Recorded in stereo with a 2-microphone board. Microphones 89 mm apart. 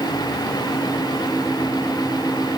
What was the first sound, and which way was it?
Only background noise.